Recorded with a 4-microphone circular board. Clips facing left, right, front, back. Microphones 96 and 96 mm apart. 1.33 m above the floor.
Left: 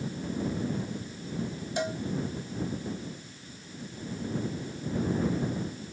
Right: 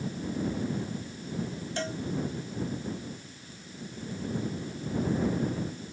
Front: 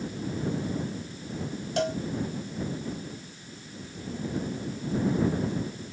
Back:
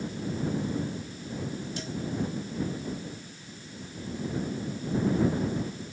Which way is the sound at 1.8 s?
15° left.